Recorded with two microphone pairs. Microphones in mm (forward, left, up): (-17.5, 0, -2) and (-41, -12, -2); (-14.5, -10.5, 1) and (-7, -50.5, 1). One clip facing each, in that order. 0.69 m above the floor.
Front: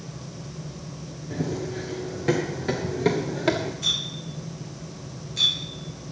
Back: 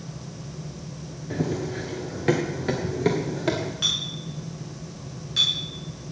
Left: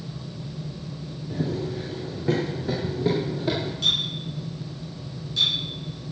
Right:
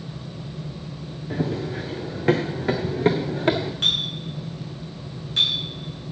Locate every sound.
1.3 s running footsteps: 100° right, 3.5 m; by 3.7 s 50° right, 2.5 m
3.8 s a clink: 125° right, 6.5 m